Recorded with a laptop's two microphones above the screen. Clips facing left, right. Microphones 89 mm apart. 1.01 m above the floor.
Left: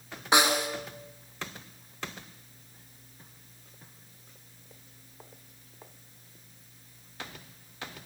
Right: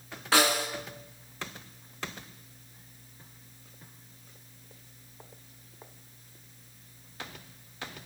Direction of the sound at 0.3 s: 20° left (ahead or behind).